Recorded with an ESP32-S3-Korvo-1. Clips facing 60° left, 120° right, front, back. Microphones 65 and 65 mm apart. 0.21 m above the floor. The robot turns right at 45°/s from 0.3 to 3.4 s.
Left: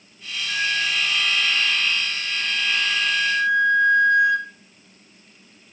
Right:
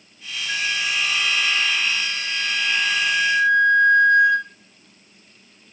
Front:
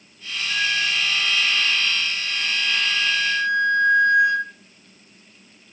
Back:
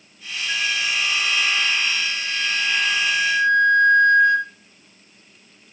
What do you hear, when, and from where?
0.5 s a flute: 150° left, 4.5 m; by 4.5 s 80° right, 4.5 m